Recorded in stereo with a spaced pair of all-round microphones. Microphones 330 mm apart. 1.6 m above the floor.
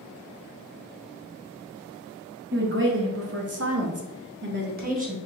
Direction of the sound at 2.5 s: 35° right (ahead or behind).